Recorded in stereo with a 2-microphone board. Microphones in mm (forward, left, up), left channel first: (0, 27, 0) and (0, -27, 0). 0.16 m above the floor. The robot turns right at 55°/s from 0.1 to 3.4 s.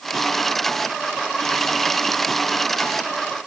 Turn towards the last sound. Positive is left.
No sound to turn to.